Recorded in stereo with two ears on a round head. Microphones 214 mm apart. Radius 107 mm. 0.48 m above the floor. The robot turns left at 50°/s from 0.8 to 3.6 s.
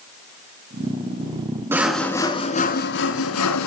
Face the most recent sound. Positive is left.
turn(degrees=95)